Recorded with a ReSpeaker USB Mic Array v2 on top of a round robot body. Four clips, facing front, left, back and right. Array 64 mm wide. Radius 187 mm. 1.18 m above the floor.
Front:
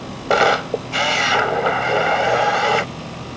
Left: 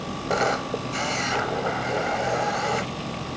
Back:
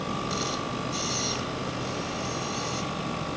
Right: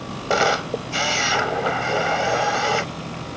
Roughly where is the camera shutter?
Ahead.